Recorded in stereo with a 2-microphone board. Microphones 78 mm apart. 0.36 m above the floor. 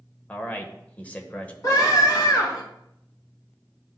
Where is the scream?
45° left (ahead or behind), 2.5 m.